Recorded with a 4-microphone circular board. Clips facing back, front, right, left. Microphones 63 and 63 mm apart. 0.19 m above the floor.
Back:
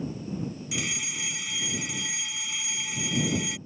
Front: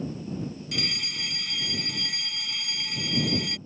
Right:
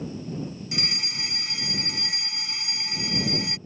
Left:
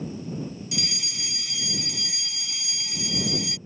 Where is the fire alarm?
105° right.